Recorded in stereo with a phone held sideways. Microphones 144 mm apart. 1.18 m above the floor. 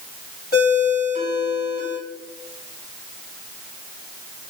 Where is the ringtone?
85° left, 1.5 m.